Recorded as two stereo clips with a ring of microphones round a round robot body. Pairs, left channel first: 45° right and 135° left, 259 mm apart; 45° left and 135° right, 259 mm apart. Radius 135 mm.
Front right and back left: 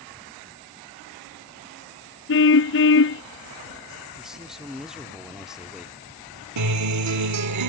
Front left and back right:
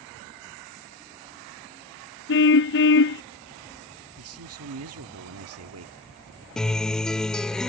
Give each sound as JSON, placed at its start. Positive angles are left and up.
{"t": 2.3, "sound": "a car horn", "azimuth_deg": 0}
{"t": 4.2, "sound": "a man speaking", "azimuth_deg": -135}
{"t": 6.6, "sound": "a guitar", "azimuth_deg": 130}